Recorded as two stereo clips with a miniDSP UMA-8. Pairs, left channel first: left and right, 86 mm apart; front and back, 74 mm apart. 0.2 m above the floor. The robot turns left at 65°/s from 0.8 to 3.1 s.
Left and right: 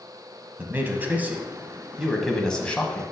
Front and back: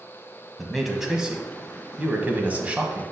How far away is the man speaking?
About 1.0 m.